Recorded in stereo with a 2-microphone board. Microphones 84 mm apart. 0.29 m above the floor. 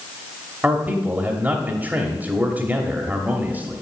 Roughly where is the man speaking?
Right.